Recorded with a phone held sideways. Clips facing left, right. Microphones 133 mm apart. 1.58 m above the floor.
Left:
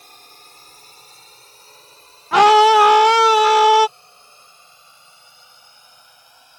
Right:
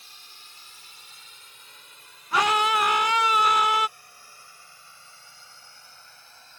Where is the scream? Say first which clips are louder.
Left 13 dB; 80° left.